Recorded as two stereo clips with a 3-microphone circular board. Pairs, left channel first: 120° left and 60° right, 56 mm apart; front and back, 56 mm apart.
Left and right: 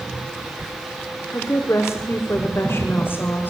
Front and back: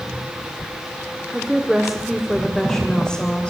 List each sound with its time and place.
1.3 s a woman speaking: 110° left, 2.0 m; by 3.5 s 70° left, 2.5 m